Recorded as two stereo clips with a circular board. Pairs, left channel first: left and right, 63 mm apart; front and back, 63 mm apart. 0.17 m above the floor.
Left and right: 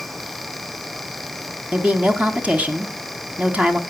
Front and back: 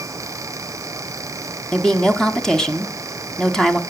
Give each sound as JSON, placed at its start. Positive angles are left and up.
{"t": 1.7, "sound": "a woman speaking", "azimuth_deg": -65, "distance_m": 1.1}